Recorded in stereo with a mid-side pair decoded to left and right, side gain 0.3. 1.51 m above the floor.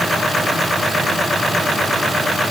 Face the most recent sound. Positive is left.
No sound to turn to.